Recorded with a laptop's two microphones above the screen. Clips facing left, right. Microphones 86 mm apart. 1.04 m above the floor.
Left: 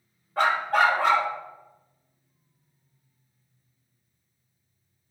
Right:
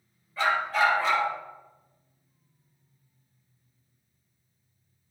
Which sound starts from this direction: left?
A dog barking, at 0.4 s.